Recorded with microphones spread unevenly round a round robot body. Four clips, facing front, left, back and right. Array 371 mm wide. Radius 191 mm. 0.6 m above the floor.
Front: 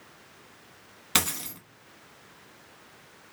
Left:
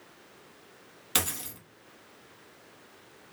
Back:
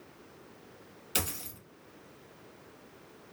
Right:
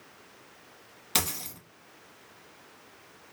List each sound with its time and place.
1.1 s a dropped coin: straight ahead, 1.0 m